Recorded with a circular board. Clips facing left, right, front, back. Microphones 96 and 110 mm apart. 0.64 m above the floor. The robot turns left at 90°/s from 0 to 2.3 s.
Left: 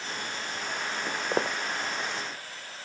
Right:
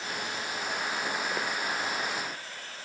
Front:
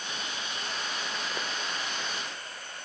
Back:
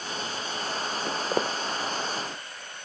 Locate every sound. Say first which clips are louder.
1.1 s footsteps: left 3 dB, back 8 dB; 170° left; by 1.6 s 125° left